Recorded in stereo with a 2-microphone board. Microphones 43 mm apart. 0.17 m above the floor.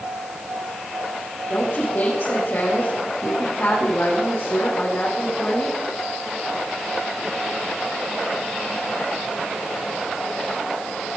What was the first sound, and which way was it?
A woman speaking, 55° left (ahead or behind).